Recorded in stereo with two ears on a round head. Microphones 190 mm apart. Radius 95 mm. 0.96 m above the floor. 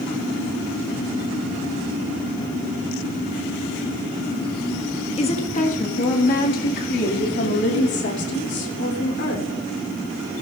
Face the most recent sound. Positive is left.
turn(degrees=60)  # may be behind; listen again after turning